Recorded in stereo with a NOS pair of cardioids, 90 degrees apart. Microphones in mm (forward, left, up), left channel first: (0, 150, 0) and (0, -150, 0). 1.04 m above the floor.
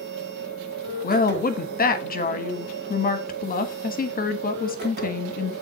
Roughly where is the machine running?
Ahead right.